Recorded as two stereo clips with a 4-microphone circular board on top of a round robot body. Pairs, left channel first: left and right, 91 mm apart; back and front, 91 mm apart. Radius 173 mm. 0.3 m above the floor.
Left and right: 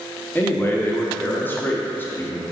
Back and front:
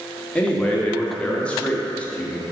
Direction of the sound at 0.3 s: 120° left.